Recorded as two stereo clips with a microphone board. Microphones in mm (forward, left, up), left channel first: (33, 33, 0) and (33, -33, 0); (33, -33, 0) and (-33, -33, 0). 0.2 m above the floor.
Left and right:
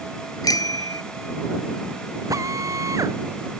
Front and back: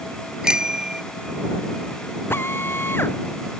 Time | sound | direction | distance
0.4 | a bicycle bell | 100° left | ?
2.3 | a drill | 55° right | ?